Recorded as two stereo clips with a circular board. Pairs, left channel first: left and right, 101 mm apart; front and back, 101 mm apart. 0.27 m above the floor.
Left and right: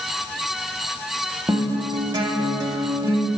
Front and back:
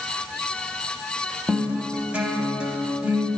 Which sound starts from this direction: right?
A guitar, at 1.5 s.